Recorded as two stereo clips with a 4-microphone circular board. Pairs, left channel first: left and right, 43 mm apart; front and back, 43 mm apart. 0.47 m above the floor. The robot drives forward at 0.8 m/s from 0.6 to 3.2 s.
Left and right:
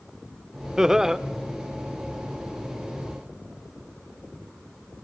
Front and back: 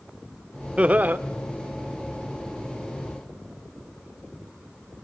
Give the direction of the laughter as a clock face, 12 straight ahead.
5 o'clock.